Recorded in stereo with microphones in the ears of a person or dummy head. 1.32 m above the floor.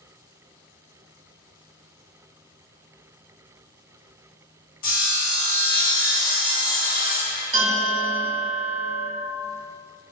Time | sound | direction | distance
4.8 | sawing | 45° left (ahead or behind) | 0.7 m
7.5 | a bell | 55° right (ahead or behind) | 0.5 m